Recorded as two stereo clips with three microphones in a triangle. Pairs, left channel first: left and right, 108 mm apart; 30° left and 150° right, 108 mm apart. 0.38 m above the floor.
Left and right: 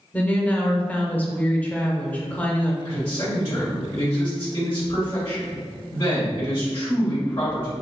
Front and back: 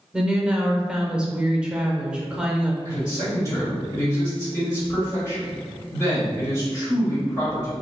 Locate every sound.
0.1 s a woman speaking: 145° left, 0.8 m
2.9 s a man speaking: 75° left, 1.8 m